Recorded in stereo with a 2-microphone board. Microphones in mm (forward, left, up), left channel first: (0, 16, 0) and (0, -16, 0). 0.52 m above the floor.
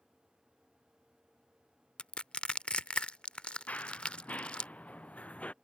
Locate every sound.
2.0 s crushing: 40° left (ahead or behind)
3.7 s running footsteps: 50° left (ahead or behind); by 5.5 s 45° left (ahead or behind)